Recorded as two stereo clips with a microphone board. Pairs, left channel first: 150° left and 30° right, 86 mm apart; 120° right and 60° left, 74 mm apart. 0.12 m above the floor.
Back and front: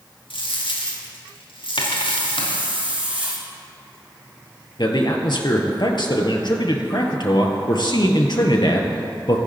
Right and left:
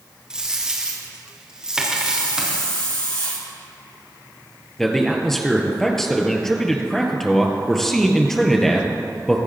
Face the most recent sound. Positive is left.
turn(degrees=155)